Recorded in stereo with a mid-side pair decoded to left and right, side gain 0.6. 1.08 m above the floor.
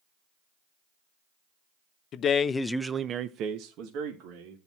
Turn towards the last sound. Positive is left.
turn(degrees=-80)